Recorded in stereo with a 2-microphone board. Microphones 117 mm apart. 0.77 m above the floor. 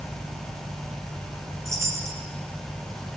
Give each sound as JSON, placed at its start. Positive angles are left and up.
{"t": 1.6, "sound": "a chime", "side_deg": -25, "distance_m": 3.5}